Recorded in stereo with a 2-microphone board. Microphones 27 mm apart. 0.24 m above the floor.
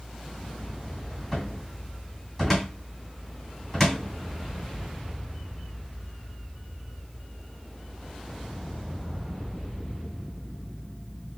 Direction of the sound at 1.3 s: 5° left (ahead or behind).